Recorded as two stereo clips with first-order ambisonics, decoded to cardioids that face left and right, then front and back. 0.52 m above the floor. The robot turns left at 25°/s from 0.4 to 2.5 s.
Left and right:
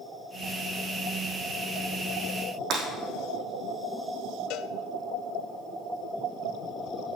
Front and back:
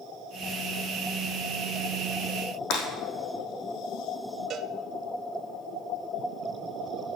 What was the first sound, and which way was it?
Breaking glass, 30° right.